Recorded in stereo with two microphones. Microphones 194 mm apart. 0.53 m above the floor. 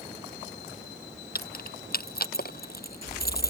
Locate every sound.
1.4 s keys jangling: 50° left (ahead or behind)